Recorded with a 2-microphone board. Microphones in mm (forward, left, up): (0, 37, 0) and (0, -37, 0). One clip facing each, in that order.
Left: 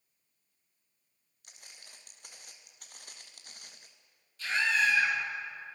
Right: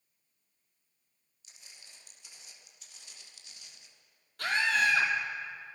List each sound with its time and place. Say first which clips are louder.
1.4 s footsteps: left 2 dB; 55° left (ahead or behind), 4.5 m; by 3.9 s 50° left (ahead or behind), 2 m
4.4 s a scream: right 1 dB; 60° right (ahead or behind), 6 m